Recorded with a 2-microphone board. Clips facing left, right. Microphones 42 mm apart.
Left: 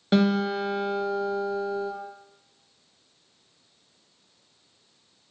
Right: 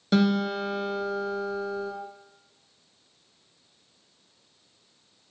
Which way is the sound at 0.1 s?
25° left (ahead or behind).